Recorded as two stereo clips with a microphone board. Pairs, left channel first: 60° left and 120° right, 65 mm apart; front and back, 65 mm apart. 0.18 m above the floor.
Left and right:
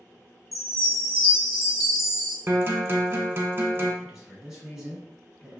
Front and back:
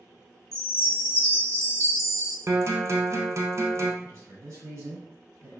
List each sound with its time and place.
0.5 s a chime: 160° left, 1.1 m
2.5 s a guitar: 165° right, 0.6 m
4.0 s a man speaking: 165° left, 1.7 m